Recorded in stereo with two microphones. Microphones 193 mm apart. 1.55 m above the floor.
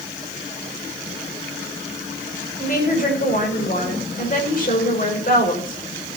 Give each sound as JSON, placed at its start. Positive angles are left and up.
{"t": 2.6, "sound": "a woman speaking", "side_deg": 45, "distance_m": 5.5}